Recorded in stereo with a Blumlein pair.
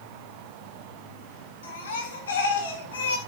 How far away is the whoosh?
I don't hear a whoosh.